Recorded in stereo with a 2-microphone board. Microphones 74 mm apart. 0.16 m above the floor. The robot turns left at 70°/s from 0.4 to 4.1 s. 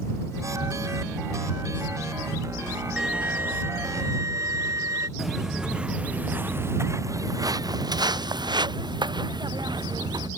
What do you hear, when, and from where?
3.0 s a violin: 10° right; by 5.1 s 90° right
5.2 s footsteps: centre (ahead or behind); by 10.3 s 75° right (ahead or behind)